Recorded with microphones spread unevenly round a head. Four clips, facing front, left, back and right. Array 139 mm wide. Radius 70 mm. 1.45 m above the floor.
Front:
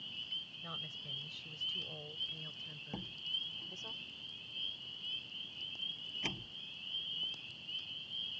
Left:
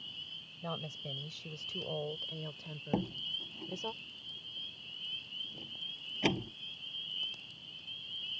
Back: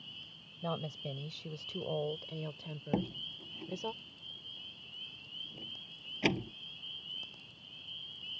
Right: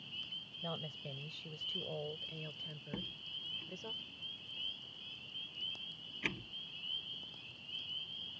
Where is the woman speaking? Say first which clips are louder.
Left 3 dB, back 14 dB; 175° left; by 3.9 s 160° left.